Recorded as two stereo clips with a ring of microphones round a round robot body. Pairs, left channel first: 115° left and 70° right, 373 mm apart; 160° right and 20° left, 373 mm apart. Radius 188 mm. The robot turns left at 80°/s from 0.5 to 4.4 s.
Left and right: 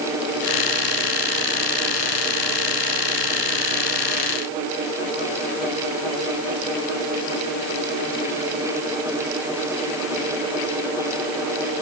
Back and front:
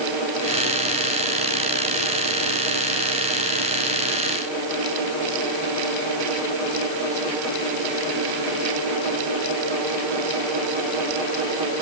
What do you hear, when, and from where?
Only background noise.